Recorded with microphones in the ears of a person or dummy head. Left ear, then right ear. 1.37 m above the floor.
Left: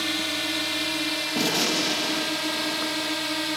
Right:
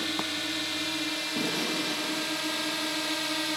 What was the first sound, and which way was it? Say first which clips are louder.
A drone: left 4 dB; 15° left (ahead or behind).